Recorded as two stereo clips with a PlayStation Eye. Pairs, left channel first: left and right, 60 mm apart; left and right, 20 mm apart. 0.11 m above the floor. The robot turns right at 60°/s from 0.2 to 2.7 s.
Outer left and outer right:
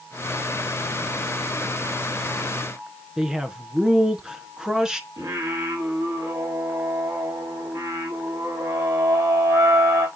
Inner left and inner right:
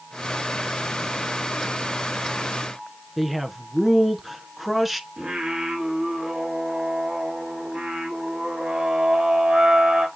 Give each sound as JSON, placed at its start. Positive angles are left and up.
{"t": 3.2, "sound": "a man speaking", "side_deg": -10, "distance_m": 1.1}
{"t": 5.2, "sound": "singing", "side_deg": -80, "distance_m": 6.0}